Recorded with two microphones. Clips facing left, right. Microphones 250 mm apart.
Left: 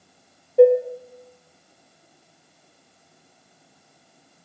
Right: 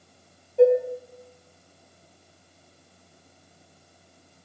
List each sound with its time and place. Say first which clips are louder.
0.6 s dishes clattering: left 4 dB; 60° left (ahead or behind), 0.9 m